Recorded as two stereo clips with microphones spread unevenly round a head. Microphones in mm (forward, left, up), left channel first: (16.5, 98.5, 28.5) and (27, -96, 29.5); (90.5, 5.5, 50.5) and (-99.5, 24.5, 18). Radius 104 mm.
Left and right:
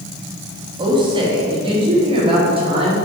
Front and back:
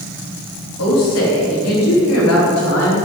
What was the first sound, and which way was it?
A woman speaking, 20° right.